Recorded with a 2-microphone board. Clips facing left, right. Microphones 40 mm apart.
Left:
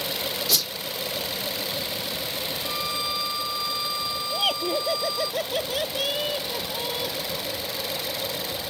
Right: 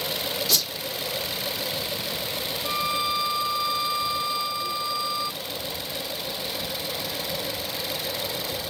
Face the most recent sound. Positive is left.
turn(degrees=85)